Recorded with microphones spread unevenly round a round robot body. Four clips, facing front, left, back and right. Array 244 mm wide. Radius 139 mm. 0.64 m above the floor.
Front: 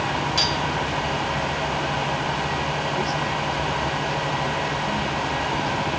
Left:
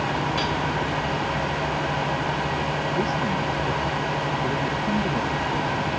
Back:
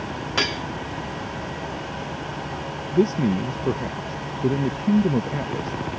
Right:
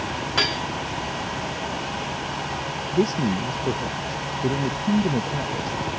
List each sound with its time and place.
0.4 s cutlery clinking: 145° right
2.9 s a man speaking: 160° right